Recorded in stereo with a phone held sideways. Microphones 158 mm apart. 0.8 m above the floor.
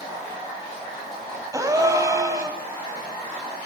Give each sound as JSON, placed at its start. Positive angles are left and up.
{"t": 1.5, "sound": "a gasp", "side_deg": -20, "distance_m": 2.5}